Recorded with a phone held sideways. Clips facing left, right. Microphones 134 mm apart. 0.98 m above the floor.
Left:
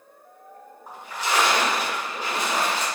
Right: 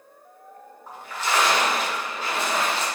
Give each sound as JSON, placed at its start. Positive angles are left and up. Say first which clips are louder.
{"t": 0.9, "sound": "a splash", "louder": "even", "side_deg": 15, "distance_m": 0.7}